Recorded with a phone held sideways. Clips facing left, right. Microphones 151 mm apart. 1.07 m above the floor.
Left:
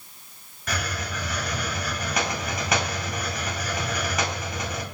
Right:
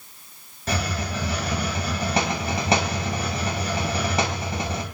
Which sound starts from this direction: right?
A hiss, at 0.7 s.